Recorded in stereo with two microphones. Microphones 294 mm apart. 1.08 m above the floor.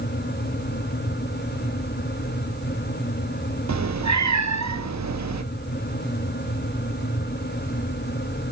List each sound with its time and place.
3.7 s a cat meowing: 65° right (ahead or behind), 0.8 m